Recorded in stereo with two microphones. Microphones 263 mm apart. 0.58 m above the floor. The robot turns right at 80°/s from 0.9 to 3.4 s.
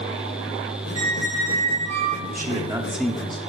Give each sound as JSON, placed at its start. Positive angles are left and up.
{"t": 0.9, "sound": "a squeak", "azimuth_deg": -165, "distance_m": 1.2}
{"t": 2.3, "sound": "a man speaking", "azimuth_deg": -60, "distance_m": 1.1}